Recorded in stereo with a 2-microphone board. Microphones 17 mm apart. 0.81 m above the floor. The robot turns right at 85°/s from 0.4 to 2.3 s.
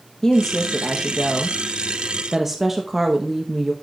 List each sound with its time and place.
0.2 s a woman speaking: 30° left (ahead or behind), 0.8 m; by 3.7 s 25° right (ahead or behind), 0.8 m